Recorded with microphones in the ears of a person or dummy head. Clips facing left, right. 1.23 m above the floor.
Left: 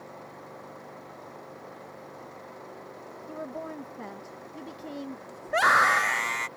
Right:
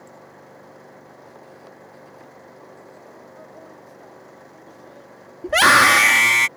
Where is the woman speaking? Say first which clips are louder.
Left 11 dB; 75° left (ahead or behind).